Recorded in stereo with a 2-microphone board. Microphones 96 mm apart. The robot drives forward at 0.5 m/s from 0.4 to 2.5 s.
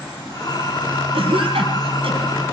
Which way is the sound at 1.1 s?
70° right (ahead or behind).